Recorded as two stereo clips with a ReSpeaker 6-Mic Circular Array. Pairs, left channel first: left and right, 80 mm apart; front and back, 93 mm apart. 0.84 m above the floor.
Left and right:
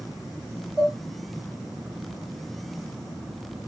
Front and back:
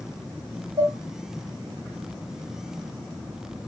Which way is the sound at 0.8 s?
140° right.